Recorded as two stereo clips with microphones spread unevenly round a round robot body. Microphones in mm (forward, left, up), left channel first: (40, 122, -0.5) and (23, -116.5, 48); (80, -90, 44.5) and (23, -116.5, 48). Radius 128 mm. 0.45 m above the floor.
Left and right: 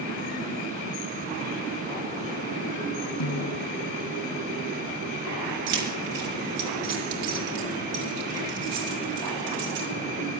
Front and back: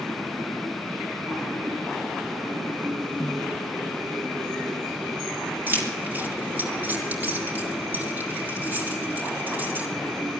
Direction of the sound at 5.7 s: 95° right.